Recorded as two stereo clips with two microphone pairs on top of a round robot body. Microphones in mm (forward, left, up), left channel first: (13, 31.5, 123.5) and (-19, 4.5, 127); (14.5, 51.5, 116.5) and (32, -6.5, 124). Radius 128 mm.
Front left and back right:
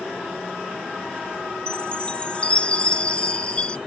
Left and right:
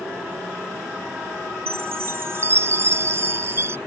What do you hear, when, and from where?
1.7 s a chime: 25° right